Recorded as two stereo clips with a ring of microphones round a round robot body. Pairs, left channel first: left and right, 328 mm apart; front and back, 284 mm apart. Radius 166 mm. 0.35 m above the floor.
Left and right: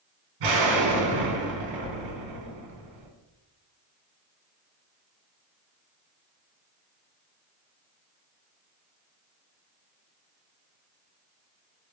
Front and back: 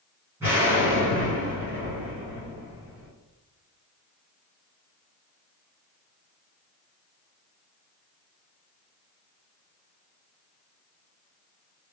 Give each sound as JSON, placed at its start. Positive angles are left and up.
{"t": 0.4, "sound": "an explosion", "azimuth_deg": -100, "distance_m": 1.1}